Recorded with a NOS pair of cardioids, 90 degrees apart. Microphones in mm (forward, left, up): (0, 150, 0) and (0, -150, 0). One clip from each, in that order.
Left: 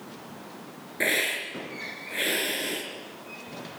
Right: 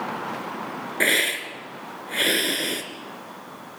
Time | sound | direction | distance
1.0 | a hiss | 40° right | 3 m